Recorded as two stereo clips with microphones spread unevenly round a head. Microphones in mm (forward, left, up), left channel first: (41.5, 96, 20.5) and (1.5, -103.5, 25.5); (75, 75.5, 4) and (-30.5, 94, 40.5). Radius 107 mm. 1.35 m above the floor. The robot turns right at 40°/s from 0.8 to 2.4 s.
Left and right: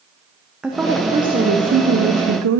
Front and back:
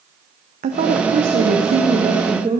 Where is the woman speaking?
170° left, 0.7 m; by 2.6 s 125° right, 0.7 m.